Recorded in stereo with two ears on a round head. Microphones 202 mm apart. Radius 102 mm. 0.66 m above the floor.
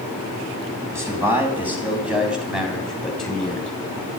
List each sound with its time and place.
0.9 s a man speaking: 10° right (ahead or behind), 4.5 m; by 3.7 s 5° left (ahead or behind), 4 m